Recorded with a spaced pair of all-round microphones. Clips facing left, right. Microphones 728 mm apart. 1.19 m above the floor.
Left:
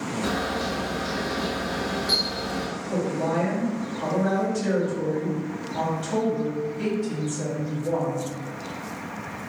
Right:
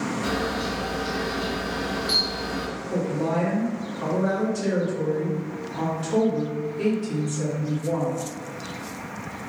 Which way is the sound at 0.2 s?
25° left (ahead or behind).